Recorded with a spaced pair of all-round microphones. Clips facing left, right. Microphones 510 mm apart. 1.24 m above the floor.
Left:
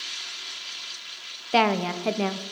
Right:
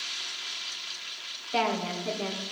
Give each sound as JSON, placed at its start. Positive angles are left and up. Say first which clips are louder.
{"t": 1.5, "sound": "a woman speaking", "louder": "left 6 dB", "side_deg": 85, "distance_m": 0.6}